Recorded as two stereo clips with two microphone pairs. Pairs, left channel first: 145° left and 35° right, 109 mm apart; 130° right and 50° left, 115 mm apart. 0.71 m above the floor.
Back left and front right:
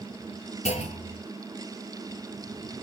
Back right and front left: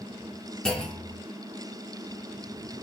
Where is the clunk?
145° left, 2 m.